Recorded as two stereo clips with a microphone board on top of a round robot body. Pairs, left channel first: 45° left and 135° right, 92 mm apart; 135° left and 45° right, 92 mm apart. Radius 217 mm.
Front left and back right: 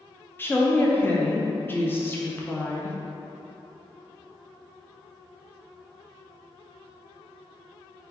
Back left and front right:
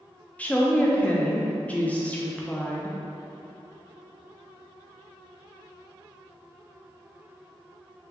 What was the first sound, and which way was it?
A woman speaking, 80° left.